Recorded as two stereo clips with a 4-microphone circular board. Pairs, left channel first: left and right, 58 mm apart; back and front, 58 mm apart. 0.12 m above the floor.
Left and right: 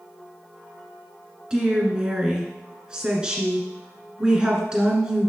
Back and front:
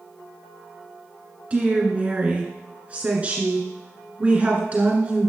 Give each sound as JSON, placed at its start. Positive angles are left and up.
{"t": 1.5, "sound": "a woman speaking", "azimuth_deg": -35, "distance_m": 1.8}